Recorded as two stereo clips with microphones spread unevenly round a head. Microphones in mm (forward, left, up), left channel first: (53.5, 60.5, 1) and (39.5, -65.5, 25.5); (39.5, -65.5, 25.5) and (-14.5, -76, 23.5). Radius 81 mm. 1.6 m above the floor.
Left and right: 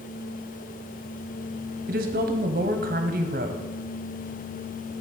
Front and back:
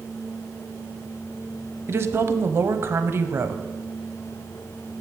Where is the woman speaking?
125° right, 0.7 m.